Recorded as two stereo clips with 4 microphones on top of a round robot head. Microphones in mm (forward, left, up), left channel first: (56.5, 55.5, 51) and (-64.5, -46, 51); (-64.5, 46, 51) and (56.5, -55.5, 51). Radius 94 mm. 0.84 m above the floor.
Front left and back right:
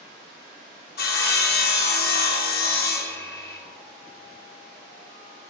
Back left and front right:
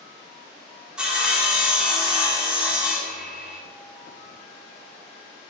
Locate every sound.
1.0 s sawing: 45° left, 2.5 m